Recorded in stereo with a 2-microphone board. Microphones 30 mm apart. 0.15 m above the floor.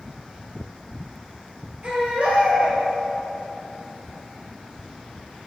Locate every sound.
1.8 s a baby crying: 40° right (ahead or behind), 2 m